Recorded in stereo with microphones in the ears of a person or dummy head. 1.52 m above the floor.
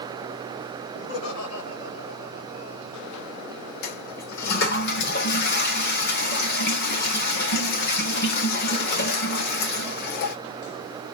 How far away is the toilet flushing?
About 0.9 m.